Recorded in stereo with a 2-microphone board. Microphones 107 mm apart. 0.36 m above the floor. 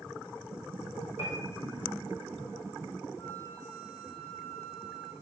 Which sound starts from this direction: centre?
A flute, at 3.2 s.